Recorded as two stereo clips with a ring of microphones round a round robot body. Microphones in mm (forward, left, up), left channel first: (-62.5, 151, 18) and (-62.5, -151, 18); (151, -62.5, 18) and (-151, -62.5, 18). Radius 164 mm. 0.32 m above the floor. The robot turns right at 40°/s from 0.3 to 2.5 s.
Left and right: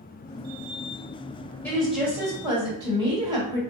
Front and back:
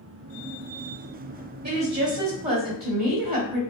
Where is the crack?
I don't hear a crack.